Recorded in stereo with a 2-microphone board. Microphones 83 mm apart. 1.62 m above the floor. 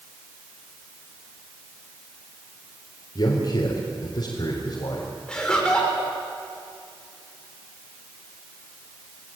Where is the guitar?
No guitar in this recording.